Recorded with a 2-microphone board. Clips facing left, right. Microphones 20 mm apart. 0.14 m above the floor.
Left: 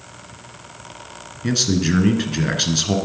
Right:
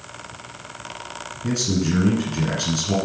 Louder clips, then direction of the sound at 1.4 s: Left 3 dB; 40° left (ahead or behind).